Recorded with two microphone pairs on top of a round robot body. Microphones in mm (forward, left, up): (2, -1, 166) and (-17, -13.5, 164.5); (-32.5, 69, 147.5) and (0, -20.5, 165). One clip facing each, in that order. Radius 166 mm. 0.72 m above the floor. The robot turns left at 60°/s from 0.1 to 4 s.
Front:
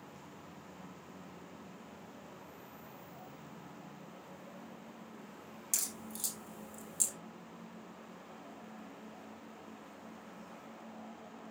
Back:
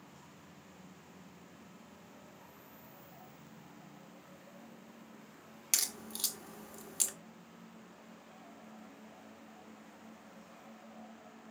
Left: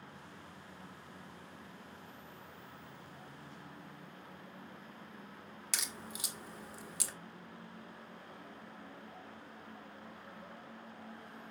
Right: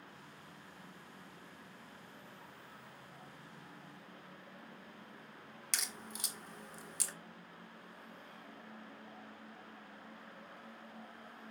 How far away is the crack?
About 1.3 m.